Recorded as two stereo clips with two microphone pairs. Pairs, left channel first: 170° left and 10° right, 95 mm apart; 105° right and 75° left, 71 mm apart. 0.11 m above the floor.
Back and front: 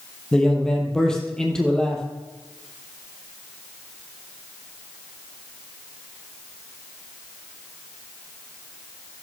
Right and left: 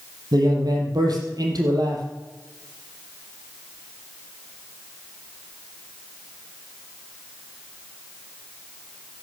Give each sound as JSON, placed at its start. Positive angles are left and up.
{"t": 0.3, "sound": "a man speaking", "azimuth_deg": 90, "distance_m": 3.5}